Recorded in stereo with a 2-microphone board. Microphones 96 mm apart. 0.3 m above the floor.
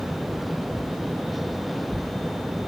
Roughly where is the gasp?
I don't hear a gasp.